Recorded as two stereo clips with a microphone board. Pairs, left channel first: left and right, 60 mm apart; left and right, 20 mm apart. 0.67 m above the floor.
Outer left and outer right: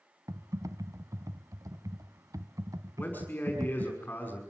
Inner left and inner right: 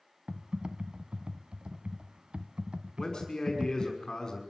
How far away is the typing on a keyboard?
About 1.1 m.